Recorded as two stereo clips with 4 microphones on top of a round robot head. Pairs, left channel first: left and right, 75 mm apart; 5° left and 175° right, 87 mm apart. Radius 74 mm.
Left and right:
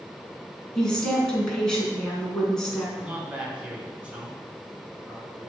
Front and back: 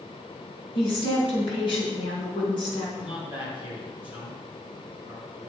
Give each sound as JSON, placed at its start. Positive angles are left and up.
{"t": 0.8, "sound": "a woman speaking", "azimuth_deg": 10, "distance_m": 4.5}
{"t": 3.0, "sound": "a man speaking", "azimuth_deg": -20, "distance_m": 4.0}